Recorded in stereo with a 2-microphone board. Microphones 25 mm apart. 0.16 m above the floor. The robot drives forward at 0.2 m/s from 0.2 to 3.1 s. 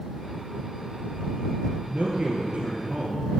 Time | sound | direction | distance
1.7 | a man speaking | 50° right (ahead or behind) | 2.5 m